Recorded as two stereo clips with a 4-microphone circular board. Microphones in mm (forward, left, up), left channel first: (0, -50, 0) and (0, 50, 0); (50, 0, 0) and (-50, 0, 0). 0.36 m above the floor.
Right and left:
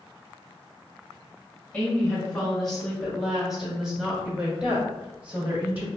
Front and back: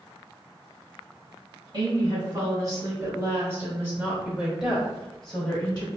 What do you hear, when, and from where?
1.7 s a woman speaking: 170° right, 1.9 m; by 5.9 s 50° left, 1.5 m